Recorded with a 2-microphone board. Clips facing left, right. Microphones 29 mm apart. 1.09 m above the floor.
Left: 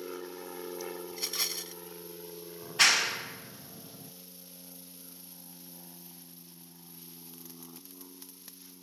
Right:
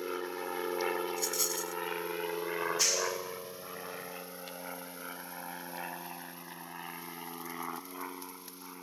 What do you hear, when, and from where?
0.0 s an aircraft: 25° right (ahead or behind); by 8.8 s 70° right (ahead or behind)
1.1 s a rattle: 40° left (ahead or behind)
2.6 s a clap: 55° left (ahead or behind)